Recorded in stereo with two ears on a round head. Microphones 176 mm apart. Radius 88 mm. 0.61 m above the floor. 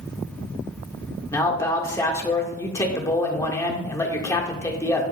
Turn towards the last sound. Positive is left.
turn(degrees=15)  # may be behind; listen again after turning